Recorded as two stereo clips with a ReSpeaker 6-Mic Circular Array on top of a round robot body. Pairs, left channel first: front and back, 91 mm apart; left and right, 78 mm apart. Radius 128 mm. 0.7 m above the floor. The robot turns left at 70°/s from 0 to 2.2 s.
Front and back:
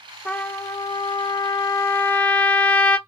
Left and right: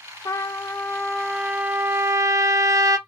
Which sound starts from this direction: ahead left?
A trumpet, at 0.2 s.